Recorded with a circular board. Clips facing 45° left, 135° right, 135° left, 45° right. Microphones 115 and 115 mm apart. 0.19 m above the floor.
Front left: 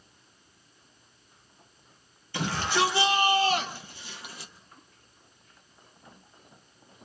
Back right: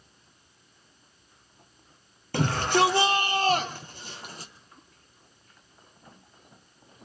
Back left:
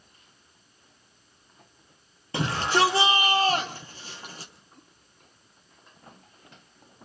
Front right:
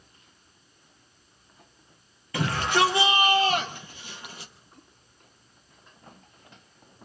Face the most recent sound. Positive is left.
turn(degrees=-175)